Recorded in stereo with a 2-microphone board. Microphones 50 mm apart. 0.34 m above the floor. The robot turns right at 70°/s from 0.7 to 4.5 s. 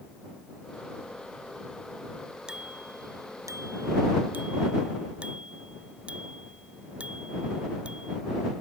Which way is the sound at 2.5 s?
15° right (ahead or behind).